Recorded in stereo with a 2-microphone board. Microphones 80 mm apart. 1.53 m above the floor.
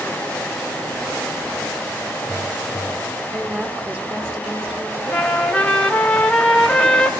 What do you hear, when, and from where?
3.3 s a woman speaking: 25° right (ahead or behind), 3.5 m
5.1 s a trumpet: 10° left (ahead or behind), 3 m